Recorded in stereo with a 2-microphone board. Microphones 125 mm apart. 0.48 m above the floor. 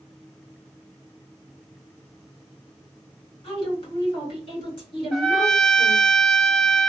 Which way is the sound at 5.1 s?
Centre (ahead or behind).